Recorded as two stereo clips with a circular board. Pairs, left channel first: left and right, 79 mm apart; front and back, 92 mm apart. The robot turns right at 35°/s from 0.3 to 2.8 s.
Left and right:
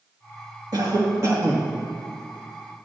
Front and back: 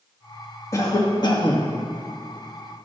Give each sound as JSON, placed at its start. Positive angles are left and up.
{"t": 0.7, "sound": "a cough", "azimuth_deg": -55, "distance_m": 2.0}